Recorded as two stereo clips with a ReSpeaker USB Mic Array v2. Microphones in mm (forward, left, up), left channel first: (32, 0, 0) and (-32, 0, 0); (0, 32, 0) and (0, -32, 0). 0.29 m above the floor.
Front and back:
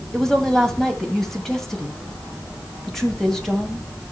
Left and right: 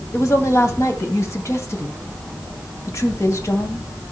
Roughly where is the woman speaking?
Left.